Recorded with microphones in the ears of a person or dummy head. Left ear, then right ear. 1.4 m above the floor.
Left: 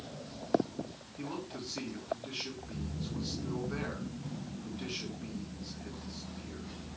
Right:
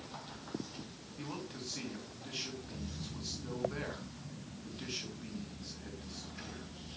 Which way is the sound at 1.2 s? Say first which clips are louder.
Left 3 dB; 15° right (ahead or behind).